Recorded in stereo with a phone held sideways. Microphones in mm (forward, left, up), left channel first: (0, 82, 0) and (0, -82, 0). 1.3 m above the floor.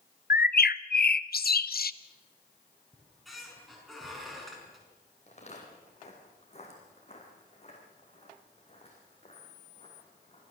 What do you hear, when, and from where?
0.3 s a bird: 70° left (ahead or behind), 0.5 m
2.9 s a squeak: centre (ahead or behind), 5.5 m
5.3 s footsteps: 45° left (ahead or behind), 4 m; by 10.4 s 35° left (ahead or behind), 6.5 m